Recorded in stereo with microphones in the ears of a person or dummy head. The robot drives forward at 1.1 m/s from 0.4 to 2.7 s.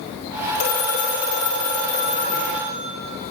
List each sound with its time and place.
0.6 s a phone ringing: 50° left (ahead or behind), 4.5 m; by 2.8 s 35° left (ahead or behind), 6.5 m